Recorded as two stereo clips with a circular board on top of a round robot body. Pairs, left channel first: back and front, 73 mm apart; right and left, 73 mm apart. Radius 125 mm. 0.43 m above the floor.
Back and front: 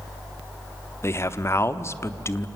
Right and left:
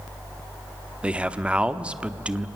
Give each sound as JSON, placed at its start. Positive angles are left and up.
{"t": 1.0, "sound": "a man speaking", "azimuth_deg": 160, "distance_m": 1.1}